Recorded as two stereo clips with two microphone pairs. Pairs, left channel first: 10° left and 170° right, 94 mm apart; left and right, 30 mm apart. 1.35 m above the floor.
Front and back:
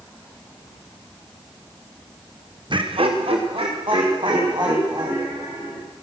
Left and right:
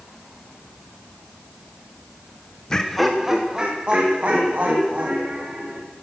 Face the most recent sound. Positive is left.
turn(degrees=-125)